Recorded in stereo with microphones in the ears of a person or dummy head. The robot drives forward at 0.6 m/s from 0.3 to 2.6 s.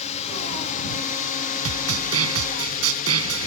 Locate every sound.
0.0 s a drone: 40° left (ahead or behind); by 3.5 s 50° left (ahead or behind)
1.6 s a snare drum: 80° right; by 3.5 s 85° right